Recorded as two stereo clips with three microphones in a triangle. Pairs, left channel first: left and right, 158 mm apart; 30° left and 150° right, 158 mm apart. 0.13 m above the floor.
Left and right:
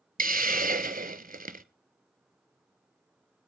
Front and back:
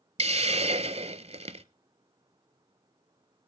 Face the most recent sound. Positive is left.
turn(degrees=-105)